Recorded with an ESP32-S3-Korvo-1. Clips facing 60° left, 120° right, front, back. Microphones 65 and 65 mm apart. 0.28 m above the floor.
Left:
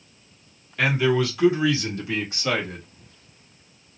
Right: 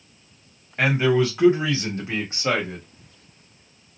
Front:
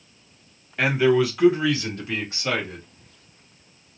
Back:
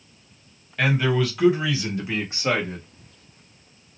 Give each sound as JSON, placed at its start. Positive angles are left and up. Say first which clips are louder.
{"t": 0.8, "sound": "a man speaking", "louder": "right 2 dB, front 3 dB", "azimuth_deg": -75, "distance_m": 1.5}